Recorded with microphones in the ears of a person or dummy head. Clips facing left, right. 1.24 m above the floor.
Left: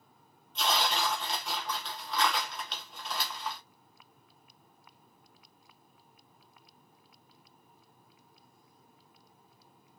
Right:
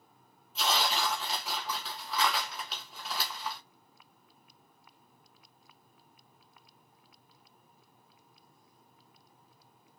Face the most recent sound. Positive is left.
turn(degrees=-5)  # may be behind; listen again after turning